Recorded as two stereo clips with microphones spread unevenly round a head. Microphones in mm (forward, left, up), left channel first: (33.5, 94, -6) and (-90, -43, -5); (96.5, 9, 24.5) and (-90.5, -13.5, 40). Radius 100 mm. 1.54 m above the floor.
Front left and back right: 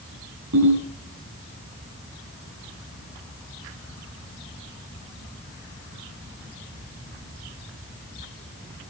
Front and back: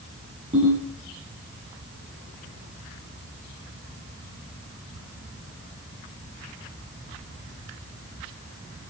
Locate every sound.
0.5 s a ringtone: 115° right, 8 m